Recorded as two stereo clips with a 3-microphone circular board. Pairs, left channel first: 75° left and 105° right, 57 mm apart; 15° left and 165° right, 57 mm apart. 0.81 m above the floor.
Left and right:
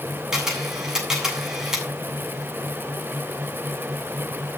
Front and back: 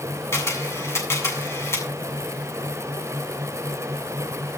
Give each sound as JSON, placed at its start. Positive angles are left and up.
{"t": 0.3, "sound": "a camera shutter", "azimuth_deg": -25, "distance_m": 8.0}